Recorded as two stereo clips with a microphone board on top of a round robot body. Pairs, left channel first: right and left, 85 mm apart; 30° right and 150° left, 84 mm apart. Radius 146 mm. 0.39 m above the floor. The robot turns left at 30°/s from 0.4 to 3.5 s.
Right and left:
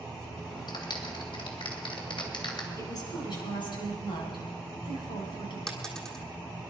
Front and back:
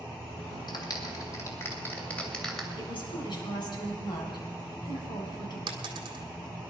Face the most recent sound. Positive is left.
turn(degrees=-175)